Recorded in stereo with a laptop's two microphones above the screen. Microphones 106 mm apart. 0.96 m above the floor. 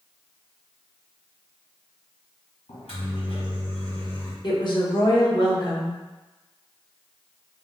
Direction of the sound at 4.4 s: 50° left (ahead or behind).